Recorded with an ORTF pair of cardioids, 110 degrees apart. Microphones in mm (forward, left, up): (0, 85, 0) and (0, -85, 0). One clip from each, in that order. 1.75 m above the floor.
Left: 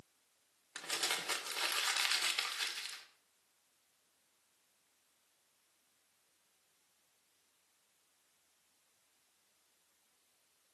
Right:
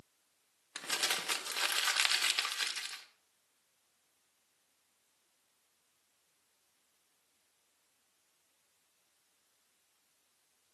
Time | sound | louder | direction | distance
0.8 | crumpling | right 3 dB | 25° right | 2 m